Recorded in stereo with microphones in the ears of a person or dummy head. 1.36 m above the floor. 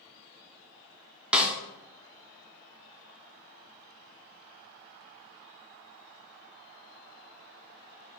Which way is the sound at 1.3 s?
5° right (ahead or behind).